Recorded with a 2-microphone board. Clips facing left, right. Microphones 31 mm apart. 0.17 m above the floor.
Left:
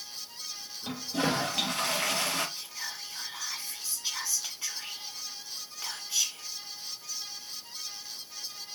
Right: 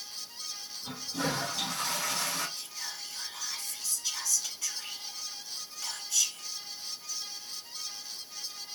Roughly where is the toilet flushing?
Left.